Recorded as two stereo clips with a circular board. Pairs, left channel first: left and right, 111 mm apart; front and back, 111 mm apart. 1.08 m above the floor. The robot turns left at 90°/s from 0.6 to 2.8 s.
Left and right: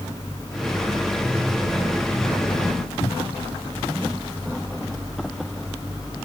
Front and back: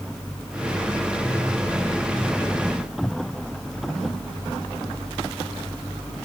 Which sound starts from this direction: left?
A cupboard door, at 3.0 s.